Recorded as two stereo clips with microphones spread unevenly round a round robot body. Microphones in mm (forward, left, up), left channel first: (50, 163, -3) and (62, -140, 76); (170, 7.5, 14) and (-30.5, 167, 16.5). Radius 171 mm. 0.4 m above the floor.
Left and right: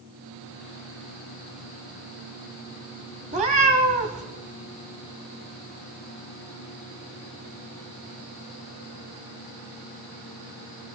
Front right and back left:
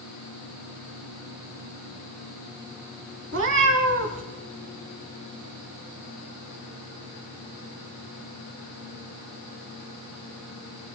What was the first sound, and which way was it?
A cat meowing, 160° right.